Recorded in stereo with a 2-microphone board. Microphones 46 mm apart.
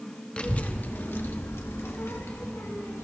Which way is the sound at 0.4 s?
25° left (ahead or behind).